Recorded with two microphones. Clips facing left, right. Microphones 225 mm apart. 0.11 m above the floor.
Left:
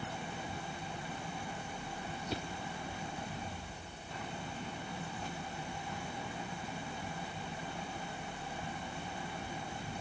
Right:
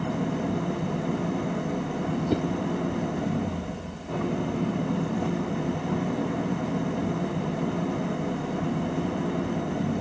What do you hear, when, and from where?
0.0 s an engine running: 65° right (ahead or behind)
2.3 s a whoosh: 55° right (ahead or behind)